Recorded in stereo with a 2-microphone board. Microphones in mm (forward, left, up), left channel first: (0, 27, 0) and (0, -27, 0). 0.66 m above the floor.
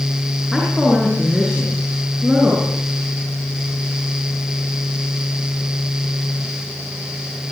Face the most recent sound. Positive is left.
turn(degrees=-10)  # may be behind; listen again after turning